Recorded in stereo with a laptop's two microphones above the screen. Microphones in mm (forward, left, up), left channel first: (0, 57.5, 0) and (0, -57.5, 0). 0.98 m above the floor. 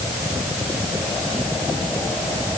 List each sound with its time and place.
Only background noise.